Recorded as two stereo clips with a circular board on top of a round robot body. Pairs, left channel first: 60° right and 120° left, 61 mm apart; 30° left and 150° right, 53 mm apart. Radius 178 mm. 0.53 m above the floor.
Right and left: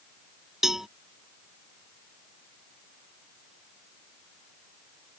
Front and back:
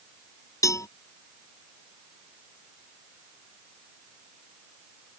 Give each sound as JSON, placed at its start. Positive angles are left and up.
{"t": 0.6, "sound": "a cowbell", "azimuth_deg": 35}